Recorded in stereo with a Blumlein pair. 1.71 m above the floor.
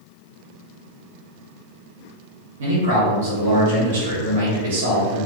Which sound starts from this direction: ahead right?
A man speaking, at 2.6 s.